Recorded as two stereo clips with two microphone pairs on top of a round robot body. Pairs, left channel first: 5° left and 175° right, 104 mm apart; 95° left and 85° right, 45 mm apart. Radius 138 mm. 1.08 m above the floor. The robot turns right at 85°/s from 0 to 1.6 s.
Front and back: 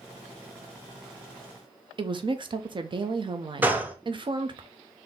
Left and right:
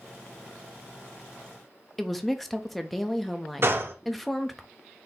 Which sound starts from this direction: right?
A gunshot, at 3.6 s.